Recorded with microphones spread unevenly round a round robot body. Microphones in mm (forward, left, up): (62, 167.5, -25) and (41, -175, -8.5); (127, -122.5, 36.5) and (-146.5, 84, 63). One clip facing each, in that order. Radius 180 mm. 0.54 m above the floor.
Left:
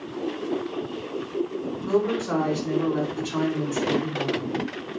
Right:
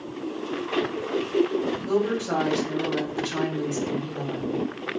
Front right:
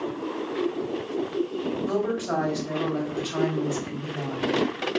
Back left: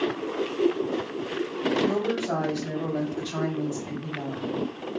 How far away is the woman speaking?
About 1.5 m.